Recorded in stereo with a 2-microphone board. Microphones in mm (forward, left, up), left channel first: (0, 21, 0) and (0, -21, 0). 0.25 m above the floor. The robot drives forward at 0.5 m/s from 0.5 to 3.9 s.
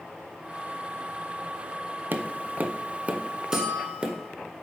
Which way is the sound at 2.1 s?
55° right (ahead or behind).